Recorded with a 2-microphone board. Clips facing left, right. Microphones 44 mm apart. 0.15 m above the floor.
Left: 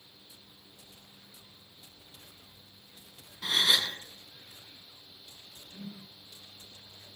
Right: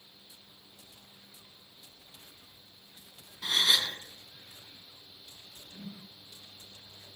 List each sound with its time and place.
3.4 s a gasp: 5° left (ahead or behind), 1.3 m
5.7 s a whoosh: 10° right (ahead or behind), 5.5 m